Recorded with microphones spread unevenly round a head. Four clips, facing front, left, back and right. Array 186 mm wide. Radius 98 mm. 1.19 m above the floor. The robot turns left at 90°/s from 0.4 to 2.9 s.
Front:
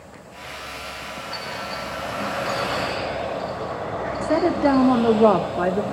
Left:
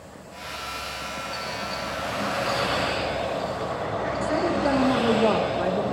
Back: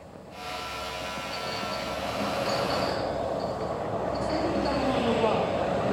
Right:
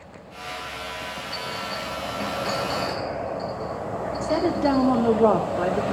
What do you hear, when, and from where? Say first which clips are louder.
1.3 s a clink: right 1 dB, front 3 dB; 5° left, 5.5 m; by 5.1 s 140° right, 5.5 m
4.2 s a woman speaking: right 3 dB, front 11 dB; 10° right, 2 m